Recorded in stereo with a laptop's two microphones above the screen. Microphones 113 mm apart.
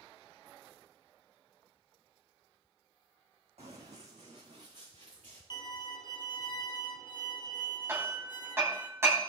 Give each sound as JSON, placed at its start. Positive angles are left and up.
{"t": 3.6, "sound": "running footsteps", "side_deg": -70, "distance_m": 3.0}
{"t": 5.5, "sound": "a violin", "side_deg": 40, "distance_m": 1.2}
{"t": 7.9, "sound": "hammering", "side_deg": -25, "distance_m": 3.0}